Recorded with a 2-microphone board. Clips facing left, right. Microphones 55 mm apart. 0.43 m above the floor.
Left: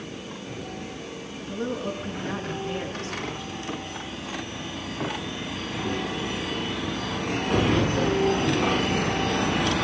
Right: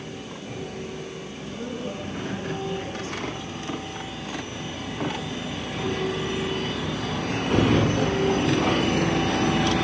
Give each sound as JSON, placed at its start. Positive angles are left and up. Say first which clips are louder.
{"t": 1.4, "sound": "a woman speaking", "louder": "left 4 dB", "side_deg": 55, "distance_m": 5.0}